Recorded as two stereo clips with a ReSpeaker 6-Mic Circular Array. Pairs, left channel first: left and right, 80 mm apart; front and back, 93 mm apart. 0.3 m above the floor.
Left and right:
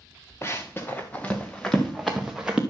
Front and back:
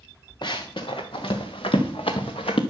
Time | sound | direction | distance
0.4 | running footsteps | 35° left | 1.7 m